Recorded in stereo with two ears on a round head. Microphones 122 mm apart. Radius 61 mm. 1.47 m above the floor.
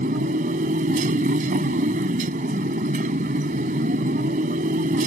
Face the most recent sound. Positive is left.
turn(degrees=-60)  # may be behind; listen again after turning